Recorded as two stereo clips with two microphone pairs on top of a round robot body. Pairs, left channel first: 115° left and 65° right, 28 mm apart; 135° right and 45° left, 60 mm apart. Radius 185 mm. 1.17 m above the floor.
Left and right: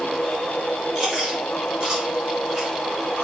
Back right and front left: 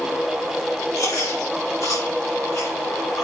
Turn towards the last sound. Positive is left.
turn(degrees=-130)